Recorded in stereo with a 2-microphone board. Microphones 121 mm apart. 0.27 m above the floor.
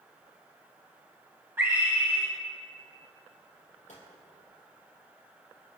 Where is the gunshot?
70° left (ahead or behind), 4 m.